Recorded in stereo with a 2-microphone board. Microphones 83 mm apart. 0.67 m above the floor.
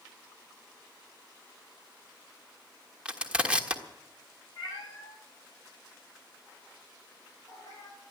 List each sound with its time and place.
3.0 s crushing: 15° right (ahead or behind), 1.4 m
4.6 s a cat meowing: 50° left (ahead or behind), 5.5 m